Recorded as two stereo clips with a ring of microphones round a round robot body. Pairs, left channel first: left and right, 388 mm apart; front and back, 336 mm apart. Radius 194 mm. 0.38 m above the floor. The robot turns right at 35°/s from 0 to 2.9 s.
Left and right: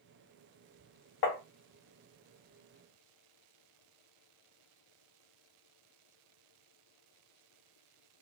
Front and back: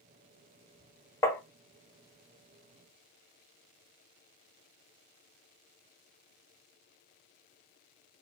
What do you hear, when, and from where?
1.2 s tapping: 80° left, 0.8 m; by 1.4 s 85° left, 0.8 m